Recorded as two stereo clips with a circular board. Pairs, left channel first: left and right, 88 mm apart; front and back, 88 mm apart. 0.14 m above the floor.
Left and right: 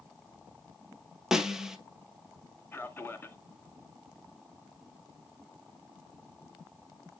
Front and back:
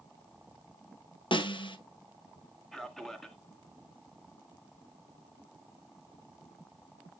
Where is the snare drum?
5° right, 0.9 m.